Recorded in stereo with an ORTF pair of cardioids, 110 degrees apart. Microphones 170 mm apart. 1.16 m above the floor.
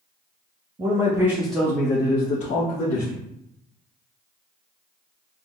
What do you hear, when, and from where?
0.8 s a man speaking: 25° right, 1.1 m; by 3.1 s 60° left, 1.3 m